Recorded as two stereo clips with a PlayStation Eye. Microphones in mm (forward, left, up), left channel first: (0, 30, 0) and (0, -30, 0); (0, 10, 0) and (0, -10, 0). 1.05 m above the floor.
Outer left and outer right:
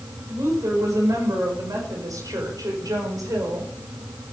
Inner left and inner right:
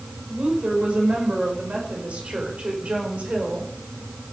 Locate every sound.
0.3 s a woman speaking: 65° right (ahead or behind), 5 m; by 3.7 s 80° right, 5 m